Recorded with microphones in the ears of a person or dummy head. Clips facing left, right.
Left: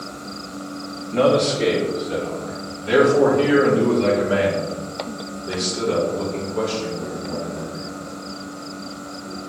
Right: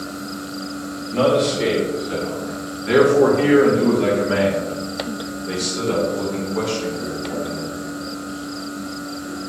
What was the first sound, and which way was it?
A man speaking, centre (ahead or behind).